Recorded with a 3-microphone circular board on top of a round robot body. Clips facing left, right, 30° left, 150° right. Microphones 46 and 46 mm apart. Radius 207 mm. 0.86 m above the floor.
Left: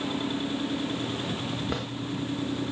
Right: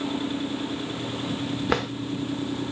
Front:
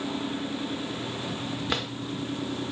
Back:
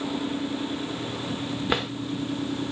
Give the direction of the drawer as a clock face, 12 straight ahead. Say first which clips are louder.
Right 7 dB, back 5 dB; 3 o'clock.